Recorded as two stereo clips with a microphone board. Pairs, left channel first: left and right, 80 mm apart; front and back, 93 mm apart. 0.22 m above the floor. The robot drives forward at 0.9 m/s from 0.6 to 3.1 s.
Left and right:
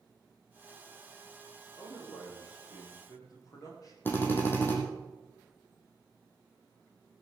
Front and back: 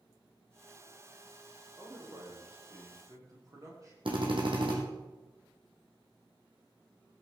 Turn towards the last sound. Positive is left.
turn(degrees=155)